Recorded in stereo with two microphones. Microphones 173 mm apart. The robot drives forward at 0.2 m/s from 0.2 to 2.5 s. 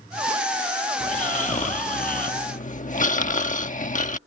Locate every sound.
1.0 s snoring: 45° left (ahead or behind); by 4.2 s 50° left (ahead or behind)